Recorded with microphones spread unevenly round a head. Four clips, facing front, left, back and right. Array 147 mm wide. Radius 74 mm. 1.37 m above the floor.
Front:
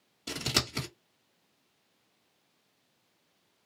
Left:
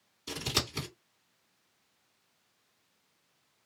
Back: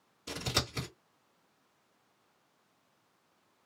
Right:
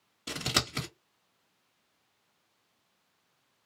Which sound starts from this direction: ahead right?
Scissors, at 0.3 s.